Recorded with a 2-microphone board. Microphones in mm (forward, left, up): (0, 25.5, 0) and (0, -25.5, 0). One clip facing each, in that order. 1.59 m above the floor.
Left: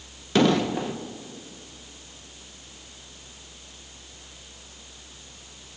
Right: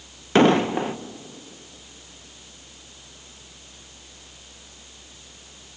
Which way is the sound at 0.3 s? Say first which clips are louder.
Right 4 dB; 35° right (ahead or behind).